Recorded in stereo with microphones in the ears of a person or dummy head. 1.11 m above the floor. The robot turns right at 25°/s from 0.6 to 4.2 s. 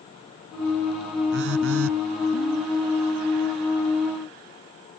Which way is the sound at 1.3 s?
65° right (ahead or behind).